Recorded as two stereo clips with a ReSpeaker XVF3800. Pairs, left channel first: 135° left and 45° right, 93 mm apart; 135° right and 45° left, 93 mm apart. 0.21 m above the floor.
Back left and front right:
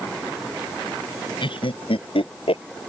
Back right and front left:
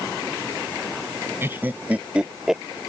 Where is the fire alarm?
I don't hear a fire alarm.